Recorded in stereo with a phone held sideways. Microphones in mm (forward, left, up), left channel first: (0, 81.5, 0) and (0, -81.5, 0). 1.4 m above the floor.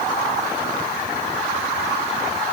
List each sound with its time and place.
Only background noise.